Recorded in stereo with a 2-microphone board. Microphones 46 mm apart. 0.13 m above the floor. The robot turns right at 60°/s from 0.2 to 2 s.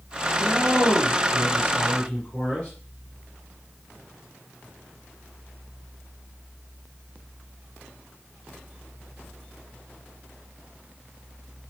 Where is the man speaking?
40° left, 1.7 m; by 2.7 s 140° left, 1.7 m.